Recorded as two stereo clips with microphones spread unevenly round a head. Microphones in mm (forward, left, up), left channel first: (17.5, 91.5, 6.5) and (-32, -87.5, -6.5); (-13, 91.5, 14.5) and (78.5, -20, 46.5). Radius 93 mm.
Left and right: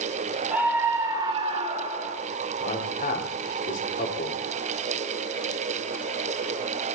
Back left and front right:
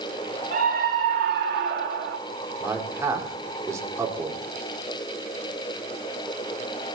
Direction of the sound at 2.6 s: 25° left.